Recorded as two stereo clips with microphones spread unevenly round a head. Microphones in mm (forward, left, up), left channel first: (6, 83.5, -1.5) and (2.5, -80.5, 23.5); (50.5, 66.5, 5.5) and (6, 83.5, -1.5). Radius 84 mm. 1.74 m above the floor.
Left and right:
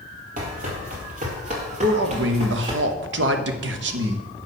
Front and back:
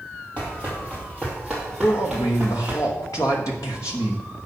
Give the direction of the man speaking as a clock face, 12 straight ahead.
3 o'clock.